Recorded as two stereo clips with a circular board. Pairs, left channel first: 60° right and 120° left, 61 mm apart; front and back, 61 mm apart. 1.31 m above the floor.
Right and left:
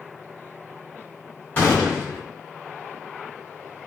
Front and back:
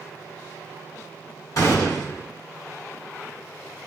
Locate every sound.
1.6 s a gunshot: straight ahead, 3 m